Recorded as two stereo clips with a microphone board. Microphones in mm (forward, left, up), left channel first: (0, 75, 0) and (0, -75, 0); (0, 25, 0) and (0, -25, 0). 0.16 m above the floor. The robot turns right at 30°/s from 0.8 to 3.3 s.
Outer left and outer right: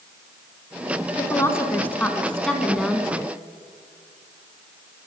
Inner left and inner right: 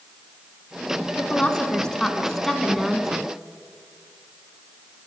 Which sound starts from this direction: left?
A woman speaking, at 1.2 s.